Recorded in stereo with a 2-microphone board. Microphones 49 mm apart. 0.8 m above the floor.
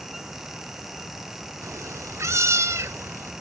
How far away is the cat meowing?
About 0.9 m.